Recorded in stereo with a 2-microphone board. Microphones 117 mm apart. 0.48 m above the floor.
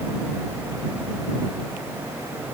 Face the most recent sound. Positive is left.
No sound to turn to.